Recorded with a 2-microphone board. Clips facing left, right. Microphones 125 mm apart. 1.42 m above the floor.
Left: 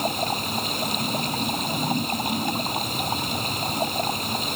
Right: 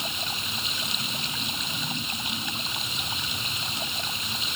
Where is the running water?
45° left (ahead or behind).